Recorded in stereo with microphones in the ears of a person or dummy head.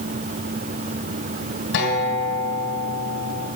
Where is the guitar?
65° left (ahead or behind), 2.5 m.